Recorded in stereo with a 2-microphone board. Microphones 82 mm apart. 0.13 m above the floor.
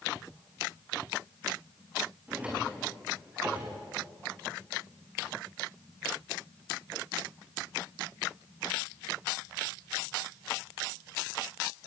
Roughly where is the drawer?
Centre.